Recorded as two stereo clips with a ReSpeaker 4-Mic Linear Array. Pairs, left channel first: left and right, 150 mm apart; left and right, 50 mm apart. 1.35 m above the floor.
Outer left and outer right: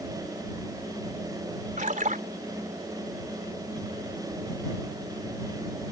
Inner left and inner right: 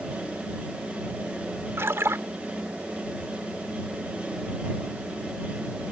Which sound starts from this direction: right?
A splash, at 1.8 s.